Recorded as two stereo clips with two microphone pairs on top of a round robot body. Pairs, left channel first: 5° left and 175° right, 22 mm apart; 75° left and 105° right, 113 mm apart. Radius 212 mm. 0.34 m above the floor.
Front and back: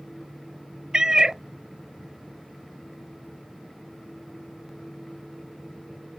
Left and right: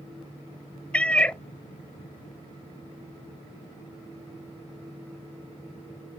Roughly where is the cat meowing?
Behind left.